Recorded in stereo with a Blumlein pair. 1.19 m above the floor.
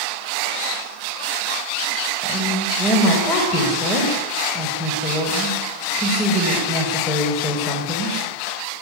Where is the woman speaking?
20° left, 5.5 m.